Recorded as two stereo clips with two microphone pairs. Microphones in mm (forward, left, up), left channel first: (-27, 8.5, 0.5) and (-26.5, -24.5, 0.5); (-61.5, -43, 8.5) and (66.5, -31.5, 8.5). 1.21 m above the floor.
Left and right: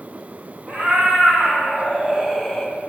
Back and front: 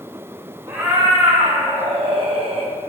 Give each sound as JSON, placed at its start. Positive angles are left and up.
{"t": 0.7, "sound": "a cat meowing", "azimuth_deg": -65, "distance_m": 1.7}